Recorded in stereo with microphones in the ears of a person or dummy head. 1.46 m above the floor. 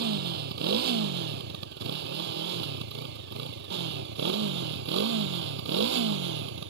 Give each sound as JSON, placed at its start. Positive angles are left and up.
{"t": 0.0, "sound": "a motorcycle", "side_deg": -60}